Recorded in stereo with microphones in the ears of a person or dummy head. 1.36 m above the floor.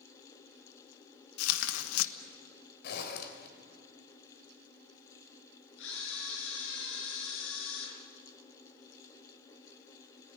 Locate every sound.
1.4 s tearing paper: 80° left, 1.1 m
2.8 s a zipper: 55° left (ahead or behind), 3.5 m
5.8 s a camera shutter: 70° left (ahead or behind), 6 m